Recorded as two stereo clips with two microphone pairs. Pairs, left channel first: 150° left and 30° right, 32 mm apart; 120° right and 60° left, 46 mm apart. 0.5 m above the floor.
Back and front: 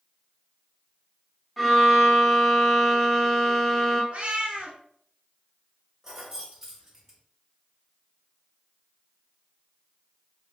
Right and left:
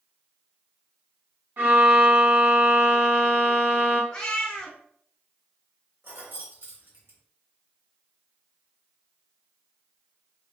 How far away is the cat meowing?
About 0.9 m.